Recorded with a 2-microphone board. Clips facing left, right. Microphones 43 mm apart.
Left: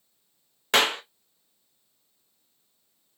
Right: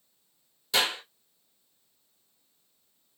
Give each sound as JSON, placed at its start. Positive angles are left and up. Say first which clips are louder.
{"t": 0.7, "sound": "a clap", "louder": "left 5 dB", "side_deg": 60, "distance_m": 0.7}